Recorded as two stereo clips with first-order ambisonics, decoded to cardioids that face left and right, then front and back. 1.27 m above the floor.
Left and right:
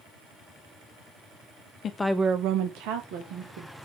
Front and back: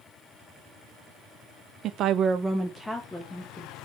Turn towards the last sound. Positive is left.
turn(degrees=-75)